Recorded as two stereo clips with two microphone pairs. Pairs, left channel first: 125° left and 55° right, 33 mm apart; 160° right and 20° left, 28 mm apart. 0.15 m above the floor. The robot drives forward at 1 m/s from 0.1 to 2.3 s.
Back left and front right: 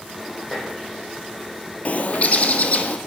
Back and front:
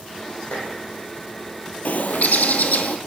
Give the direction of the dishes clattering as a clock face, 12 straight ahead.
5 o'clock.